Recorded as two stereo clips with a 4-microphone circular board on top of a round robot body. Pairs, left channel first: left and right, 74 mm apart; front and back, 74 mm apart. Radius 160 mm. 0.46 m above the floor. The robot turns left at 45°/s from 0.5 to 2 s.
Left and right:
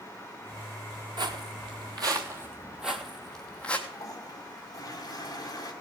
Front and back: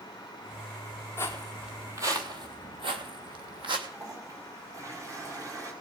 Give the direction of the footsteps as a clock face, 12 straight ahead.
2 o'clock.